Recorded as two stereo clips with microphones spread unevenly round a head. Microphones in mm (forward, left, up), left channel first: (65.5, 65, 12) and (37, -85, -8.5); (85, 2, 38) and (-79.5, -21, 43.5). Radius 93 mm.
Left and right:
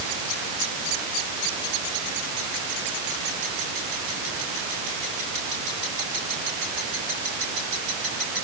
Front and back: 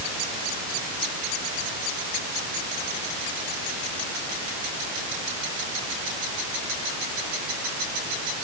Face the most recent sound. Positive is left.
No sound to turn to.